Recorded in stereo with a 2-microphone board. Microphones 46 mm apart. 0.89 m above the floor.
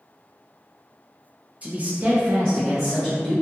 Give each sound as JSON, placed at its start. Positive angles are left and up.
{"t": 1.6, "sound": "a man speaking", "side_deg": -30, "distance_m": 0.7}